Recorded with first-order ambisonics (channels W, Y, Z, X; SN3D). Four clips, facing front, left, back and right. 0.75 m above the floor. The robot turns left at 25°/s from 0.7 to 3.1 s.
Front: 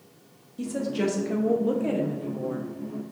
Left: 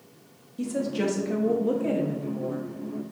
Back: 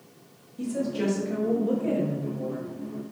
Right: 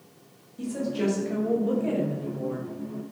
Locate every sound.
0.6 s a woman speaking: 50° left, 0.5 m; by 2.7 s straight ahead, 0.5 m